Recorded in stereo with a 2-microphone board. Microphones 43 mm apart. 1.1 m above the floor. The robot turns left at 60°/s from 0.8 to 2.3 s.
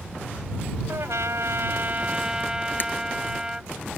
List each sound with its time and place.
0.9 s a trumpet: 80° right; by 3.7 s 160° right
2.8 s breaking glass: 45° left (ahead or behind)